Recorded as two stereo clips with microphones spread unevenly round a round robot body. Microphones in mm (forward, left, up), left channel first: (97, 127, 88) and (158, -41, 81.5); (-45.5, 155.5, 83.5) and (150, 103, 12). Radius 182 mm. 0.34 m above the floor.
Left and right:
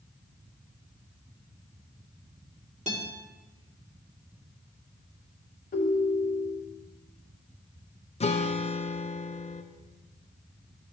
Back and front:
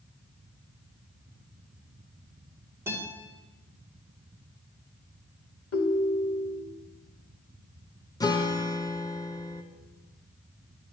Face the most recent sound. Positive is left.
turn(degrees=75)